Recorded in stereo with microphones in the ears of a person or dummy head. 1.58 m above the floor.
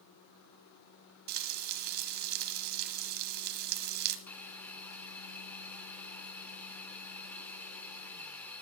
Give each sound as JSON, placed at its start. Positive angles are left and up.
{"t": 1.3, "sound": "frying", "side_deg": -50, "distance_m": 1.5}
{"t": 4.3, "sound": "a hiss", "side_deg": 10, "distance_m": 1.0}